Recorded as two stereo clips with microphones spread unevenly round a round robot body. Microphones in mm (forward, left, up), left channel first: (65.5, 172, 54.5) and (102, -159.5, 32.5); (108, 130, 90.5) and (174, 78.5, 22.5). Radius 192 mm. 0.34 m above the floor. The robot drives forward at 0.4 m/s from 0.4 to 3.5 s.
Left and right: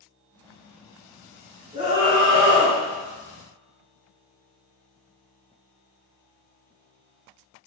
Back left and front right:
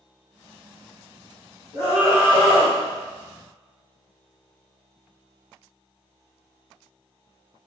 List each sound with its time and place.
1.7 s a scream: 150° right, 1.3 m; by 2.8 s 160° right, 1.6 m